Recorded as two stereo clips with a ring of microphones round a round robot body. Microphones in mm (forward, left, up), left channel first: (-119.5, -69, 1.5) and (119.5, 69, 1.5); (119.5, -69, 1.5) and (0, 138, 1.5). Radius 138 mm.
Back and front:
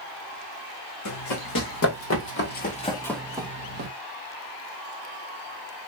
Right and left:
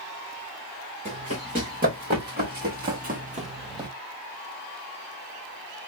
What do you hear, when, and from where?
1.1 s running footsteps: 175° right, 2.5 m; by 3.9 s 55° left, 1.1 m